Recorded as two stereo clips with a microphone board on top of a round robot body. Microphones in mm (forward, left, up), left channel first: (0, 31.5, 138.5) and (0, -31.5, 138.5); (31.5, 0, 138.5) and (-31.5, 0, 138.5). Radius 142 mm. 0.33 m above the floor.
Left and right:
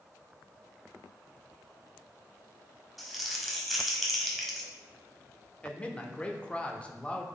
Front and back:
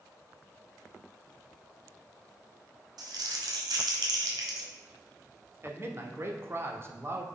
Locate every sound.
3.0 s crumpling: straight behind, 1.3 m
5.6 s a man speaking: 155° left, 1.2 m